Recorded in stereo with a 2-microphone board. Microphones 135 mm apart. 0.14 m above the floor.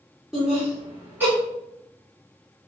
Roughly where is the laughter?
Centre.